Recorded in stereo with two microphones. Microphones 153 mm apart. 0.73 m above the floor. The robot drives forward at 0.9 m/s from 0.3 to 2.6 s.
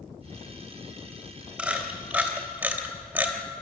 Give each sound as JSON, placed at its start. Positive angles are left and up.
{"t": 1.6, "sound": "a camera shutter", "side_deg": -10, "distance_m": 3.5}